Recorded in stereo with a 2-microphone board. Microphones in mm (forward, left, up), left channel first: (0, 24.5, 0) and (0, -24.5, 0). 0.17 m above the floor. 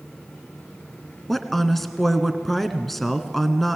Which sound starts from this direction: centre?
A woman speaking, at 1.3 s.